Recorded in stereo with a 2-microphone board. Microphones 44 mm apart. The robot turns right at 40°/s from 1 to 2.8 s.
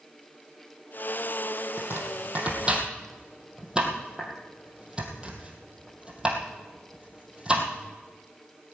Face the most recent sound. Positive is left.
turn(degrees=-20)  # may be behind; listen again after turning